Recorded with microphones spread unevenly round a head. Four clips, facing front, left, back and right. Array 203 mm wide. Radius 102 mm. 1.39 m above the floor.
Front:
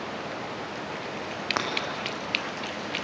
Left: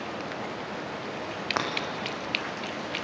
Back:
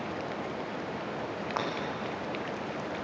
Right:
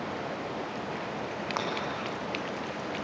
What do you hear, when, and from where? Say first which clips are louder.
1.6 s breaking glass: left 4 dB, front 3 dB; 45° left, 5.5 m